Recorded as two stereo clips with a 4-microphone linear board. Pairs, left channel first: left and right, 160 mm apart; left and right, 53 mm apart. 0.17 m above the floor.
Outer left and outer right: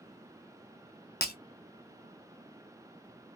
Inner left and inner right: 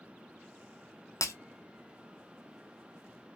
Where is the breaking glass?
80° left, 0.6 m.